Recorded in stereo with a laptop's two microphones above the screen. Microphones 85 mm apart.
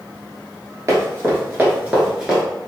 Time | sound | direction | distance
0.9 | running footsteps | 35° right (ahead or behind) | 1.1 m